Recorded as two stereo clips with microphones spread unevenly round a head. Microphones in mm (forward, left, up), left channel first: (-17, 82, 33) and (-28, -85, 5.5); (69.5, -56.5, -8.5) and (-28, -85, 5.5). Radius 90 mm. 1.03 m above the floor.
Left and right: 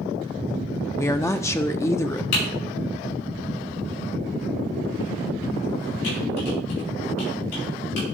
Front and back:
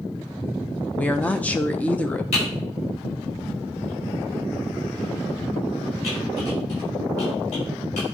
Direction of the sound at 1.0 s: 15° left.